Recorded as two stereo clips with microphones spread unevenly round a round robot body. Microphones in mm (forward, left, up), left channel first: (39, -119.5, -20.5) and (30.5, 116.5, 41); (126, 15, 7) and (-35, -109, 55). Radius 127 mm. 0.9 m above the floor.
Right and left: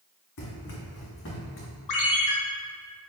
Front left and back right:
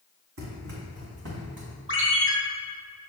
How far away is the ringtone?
About 3 m.